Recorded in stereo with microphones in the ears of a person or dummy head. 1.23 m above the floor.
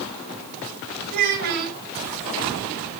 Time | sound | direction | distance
1.1 | a child speaking | 60° right (ahead or behind) | 5 m